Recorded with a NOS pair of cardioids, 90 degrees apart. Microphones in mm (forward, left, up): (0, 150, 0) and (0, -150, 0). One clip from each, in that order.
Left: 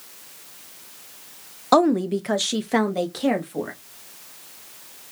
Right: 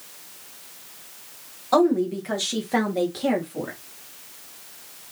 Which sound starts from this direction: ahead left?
A woman speaking, at 1.7 s.